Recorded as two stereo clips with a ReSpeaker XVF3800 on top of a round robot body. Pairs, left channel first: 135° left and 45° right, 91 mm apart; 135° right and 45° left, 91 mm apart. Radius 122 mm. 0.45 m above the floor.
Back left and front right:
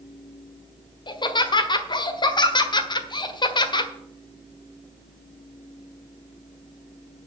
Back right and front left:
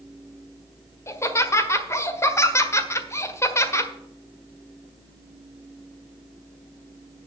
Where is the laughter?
165° left, 1.7 m.